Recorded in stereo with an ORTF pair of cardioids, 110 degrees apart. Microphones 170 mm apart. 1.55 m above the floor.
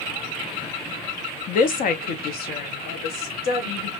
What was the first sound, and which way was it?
A woman speaking, 55° left.